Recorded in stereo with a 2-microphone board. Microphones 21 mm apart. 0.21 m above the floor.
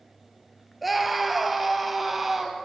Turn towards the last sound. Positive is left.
turn(degrees=-10)  # may be behind; listen again after turning